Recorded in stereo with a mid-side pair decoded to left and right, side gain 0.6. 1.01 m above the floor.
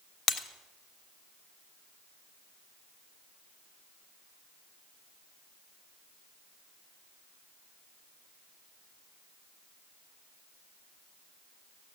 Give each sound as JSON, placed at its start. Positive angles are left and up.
{"t": 0.3, "sound": "breaking glass", "azimuth_deg": 35, "distance_m": 1.3}